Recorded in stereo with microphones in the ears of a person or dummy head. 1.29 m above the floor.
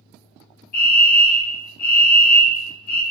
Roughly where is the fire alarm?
Left.